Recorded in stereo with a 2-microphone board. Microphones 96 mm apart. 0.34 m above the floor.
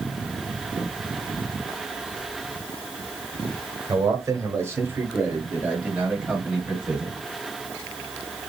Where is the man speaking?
35° right (ahead or behind), 1.3 m; by 7.2 s 10° right (ahead or behind), 2.5 m.